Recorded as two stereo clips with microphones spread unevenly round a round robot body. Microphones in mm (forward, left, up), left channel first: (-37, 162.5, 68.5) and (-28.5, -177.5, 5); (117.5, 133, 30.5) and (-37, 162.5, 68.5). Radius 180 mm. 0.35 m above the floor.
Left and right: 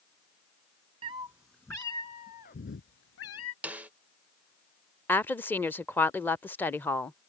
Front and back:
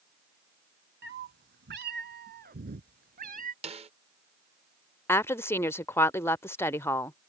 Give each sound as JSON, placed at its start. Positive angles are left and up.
{"t": 1.0, "sound": "a cat meowing", "azimuth_deg": -160}
{"t": 3.6, "sound": "a snare drum", "azimuth_deg": -150}
{"t": 5.1, "sound": "a woman speaking", "azimuth_deg": -10}